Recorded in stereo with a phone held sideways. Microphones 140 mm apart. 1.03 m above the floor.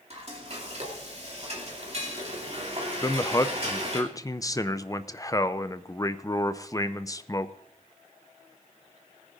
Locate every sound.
0.1 s frying: 50° right (ahead or behind), 2.5 m
3.0 s a man speaking: 25° left (ahead or behind), 0.5 m